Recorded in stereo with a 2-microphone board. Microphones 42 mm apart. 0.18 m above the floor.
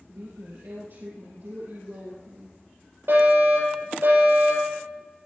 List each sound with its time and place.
0.1 s a woman speaking: 70° right (ahead or behind), 3.5 m
3.1 s a fire alarm: 60° right (ahead or behind), 8.5 m